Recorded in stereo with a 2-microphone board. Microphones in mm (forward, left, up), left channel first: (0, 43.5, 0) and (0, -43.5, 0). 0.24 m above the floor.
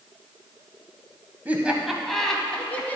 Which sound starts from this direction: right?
Laughter, at 1.4 s.